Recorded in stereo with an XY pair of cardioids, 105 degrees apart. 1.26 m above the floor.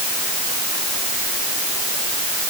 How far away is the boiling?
I don't hear boiling.